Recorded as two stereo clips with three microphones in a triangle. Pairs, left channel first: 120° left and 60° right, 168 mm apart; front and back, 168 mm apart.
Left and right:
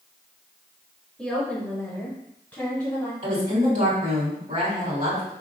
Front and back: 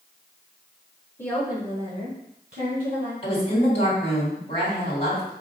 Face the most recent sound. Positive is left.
turn(degrees=-40)